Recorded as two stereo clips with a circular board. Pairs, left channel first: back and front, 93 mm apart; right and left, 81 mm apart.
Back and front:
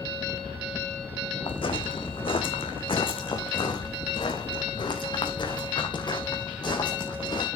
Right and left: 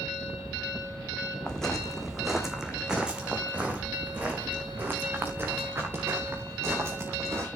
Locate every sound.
1.5 s footsteps: 170° right, 2 m; by 7.5 s 145° left, 5 m